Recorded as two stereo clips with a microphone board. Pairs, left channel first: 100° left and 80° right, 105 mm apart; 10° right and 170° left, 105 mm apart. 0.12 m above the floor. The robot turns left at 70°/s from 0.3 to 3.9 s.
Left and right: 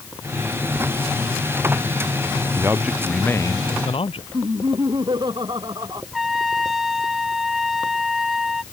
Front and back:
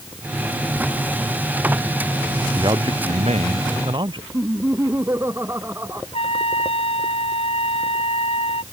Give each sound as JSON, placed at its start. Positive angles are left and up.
{"t": 2.6, "sound": "a man speaking", "azimuth_deg": -135}
{"t": 4.3, "sound": "laughter", "azimuth_deg": -125}
{"t": 6.1, "sound": "a trumpet", "azimuth_deg": 10}